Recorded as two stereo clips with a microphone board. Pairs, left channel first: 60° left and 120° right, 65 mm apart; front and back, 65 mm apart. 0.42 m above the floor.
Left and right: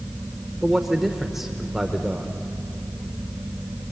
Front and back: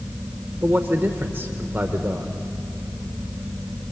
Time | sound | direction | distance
0.6 | a man speaking | 160° left | 0.9 m